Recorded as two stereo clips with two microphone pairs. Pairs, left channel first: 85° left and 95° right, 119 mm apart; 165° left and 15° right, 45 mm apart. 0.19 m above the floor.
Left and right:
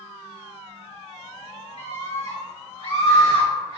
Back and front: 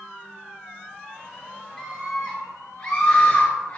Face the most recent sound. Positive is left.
turn(degrees=125)